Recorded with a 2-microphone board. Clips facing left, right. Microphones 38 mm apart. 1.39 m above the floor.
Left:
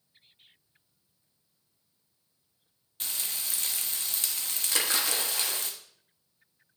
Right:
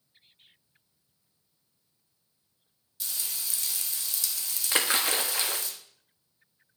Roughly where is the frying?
Left.